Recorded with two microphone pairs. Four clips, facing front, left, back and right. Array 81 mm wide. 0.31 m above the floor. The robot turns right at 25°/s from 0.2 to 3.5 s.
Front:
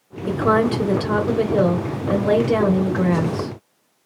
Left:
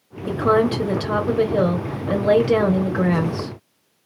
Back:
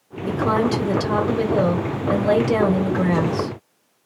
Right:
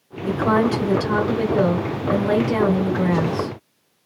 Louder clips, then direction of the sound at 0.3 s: Left 1 dB, front 2 dB; 10° left.